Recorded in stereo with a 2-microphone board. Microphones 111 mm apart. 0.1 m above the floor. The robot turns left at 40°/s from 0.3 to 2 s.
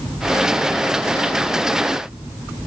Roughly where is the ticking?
I don't hear ticking.